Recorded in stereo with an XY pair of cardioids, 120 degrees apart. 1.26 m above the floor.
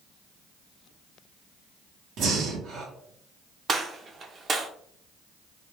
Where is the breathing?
65° right, 0.9 m.